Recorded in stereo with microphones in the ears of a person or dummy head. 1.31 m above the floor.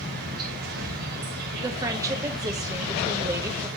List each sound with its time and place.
0.0 s an insect: 50° right (ahead or behind), 1.6 m
1.6 s a woman speaking: 15° right (ahead or behind), 1.0 m